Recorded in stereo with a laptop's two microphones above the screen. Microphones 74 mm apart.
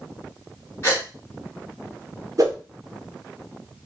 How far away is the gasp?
About 2 m.